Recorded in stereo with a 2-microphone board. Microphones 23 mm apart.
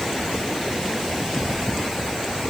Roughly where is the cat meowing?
I don't hear a cat meowing.